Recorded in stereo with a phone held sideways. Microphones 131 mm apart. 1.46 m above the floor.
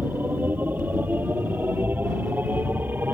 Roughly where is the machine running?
Centre.